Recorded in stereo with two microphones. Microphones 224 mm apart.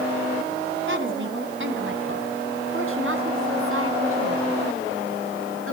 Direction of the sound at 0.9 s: 60° right (ahead or behind).